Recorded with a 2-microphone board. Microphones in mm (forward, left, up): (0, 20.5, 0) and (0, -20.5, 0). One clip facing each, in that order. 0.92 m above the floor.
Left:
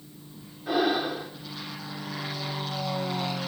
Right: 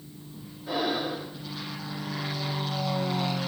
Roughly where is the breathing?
Left.